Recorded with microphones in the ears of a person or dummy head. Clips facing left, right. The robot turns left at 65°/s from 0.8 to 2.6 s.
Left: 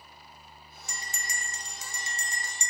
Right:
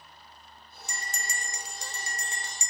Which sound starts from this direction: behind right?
A bell, at 0.9 s.